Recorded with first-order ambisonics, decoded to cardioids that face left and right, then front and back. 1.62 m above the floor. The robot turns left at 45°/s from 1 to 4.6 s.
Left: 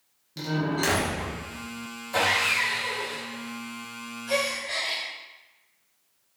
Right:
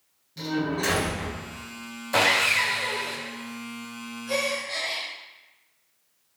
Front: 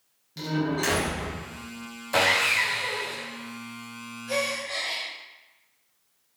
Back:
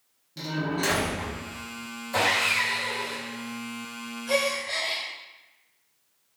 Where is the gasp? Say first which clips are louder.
Even, back 2 dB; 170° left, 1.0 m; by 5.0 s 155° left, 1.0 m.